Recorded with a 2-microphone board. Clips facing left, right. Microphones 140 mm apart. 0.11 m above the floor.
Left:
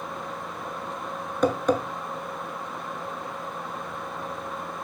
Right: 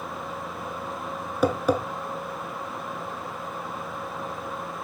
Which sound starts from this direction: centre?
Tapping, at 1.4 s.